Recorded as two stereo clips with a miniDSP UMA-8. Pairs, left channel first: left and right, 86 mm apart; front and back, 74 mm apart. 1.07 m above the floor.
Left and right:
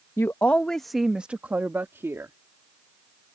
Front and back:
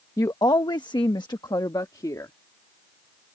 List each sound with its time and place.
0.2 s a woman speaking: 35° left; by 2.3 s 35° right